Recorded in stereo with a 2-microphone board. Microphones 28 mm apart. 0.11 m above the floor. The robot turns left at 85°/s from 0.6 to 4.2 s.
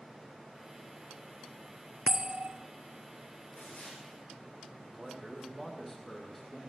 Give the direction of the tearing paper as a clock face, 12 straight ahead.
9 o'clock.